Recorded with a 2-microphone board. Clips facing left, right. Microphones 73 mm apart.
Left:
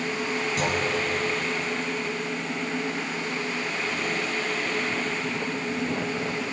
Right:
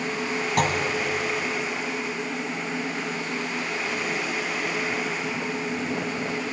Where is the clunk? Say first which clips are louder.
Right 5 dB; 55° right (ahead or behind), 1.5 m.